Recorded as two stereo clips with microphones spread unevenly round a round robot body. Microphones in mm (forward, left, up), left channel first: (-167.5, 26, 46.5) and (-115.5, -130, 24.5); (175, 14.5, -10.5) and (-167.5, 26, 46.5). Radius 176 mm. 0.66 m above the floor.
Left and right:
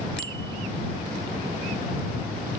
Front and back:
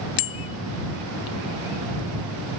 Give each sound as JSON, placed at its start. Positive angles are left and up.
{"t": 0.2, "sound": "a bicycle bell", "azimuth_deg": 20}